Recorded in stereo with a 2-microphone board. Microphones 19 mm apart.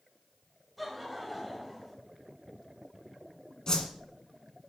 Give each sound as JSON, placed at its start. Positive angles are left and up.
{"t": 0.8, "sound": "laughter", "side_deg": 0, "distance_m": 2.0}
{"t": 3.7, "sound": "a whoosh", "side_deg": 35, "distance_m": 1.5}